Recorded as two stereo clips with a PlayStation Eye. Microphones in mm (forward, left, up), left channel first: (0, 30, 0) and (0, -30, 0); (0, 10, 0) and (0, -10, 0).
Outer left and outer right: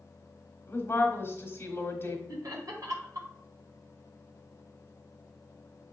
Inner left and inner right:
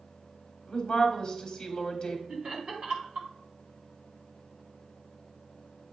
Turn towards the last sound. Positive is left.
turn(degrees=-65)  # may be behind; listen again after turning